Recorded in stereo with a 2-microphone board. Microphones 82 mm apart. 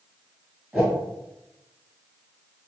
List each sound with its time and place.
0.7 s a whoosh: 20° right (ahead or behind), 1.9 m